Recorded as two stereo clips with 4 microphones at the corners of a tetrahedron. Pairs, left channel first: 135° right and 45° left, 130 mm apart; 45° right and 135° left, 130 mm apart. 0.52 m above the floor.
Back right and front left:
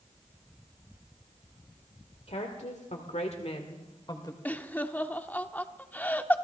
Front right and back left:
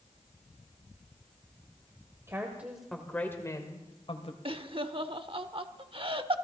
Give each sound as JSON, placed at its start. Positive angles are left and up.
{"t": 2.3, "sound": "a woman speaking", "azimuth_deg": -160, "distance_m": 1.7}
{"t": 4.5, "sound": "laughter", "azimuth_deg": 150, "distance_m": 0.9}